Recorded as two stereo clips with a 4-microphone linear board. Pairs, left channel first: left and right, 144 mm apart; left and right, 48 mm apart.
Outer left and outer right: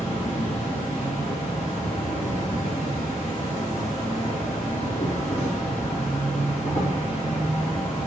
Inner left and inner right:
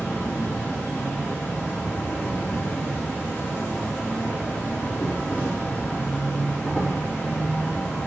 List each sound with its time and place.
0.0 s an insect: 50° left (ahead or behind), 2.5 m